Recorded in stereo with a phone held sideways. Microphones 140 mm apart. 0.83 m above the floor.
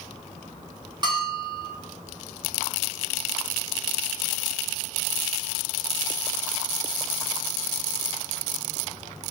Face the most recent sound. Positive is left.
turn(degrees=-35)  # may be behind; listen again after turning